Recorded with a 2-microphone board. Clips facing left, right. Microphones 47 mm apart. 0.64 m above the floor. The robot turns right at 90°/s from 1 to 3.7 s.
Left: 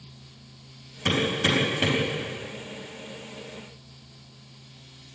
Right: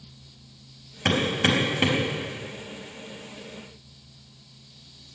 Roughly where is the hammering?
Right.